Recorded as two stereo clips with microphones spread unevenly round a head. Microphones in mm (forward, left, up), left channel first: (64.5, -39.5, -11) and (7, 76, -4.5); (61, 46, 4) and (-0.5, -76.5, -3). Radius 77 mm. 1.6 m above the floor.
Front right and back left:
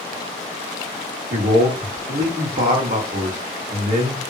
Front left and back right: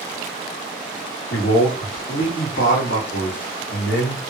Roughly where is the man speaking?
Left.